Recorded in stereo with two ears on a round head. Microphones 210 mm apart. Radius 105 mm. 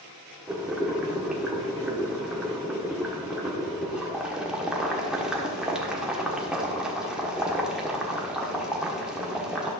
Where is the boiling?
5° right (ahead or behind), 1.1 m.